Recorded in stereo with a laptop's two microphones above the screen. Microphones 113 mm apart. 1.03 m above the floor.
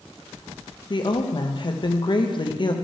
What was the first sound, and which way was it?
A woman speaking, 45° left (ahead or behind).